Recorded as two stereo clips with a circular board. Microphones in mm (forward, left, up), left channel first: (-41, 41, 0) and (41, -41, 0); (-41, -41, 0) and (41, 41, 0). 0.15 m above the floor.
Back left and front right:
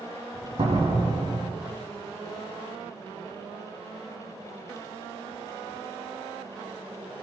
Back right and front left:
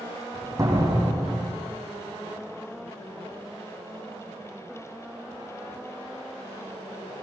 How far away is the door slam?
About 7 m.